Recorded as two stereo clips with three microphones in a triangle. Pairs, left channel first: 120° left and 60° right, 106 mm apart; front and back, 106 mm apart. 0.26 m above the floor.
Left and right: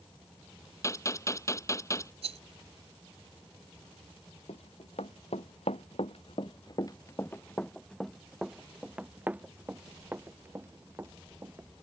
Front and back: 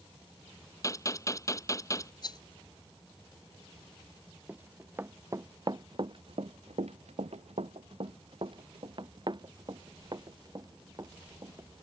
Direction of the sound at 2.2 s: 45° right.